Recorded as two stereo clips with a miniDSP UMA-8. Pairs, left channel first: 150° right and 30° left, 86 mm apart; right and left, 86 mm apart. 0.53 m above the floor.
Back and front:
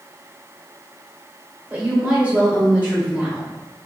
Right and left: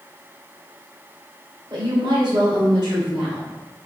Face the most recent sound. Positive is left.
turn(degrees=100)